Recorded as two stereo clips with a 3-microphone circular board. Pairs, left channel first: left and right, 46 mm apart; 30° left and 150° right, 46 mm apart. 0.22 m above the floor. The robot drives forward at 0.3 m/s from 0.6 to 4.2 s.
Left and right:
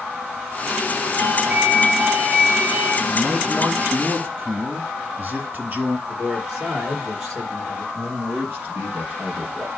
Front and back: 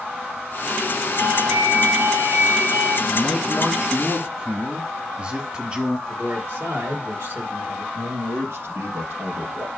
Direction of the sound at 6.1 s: 155° right.